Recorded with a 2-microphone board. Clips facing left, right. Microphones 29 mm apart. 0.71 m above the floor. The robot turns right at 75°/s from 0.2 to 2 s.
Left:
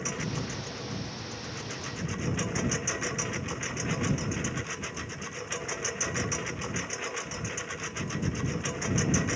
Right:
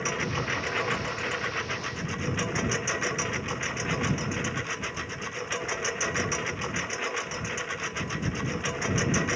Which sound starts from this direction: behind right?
A lawn mower, at 0.0 s.